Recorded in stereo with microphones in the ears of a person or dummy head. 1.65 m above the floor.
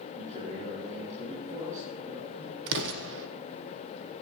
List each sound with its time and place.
0.1 s a man speaking: 40° right (ahead or behind), 7.5 m
2.7 s an explosion: 65° right (ahead or behind), 1.0 m